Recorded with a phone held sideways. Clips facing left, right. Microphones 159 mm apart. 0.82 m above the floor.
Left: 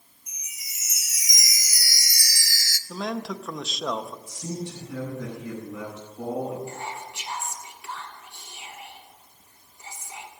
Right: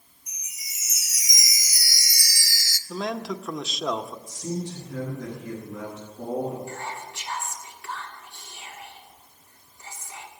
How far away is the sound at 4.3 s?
About 8 m.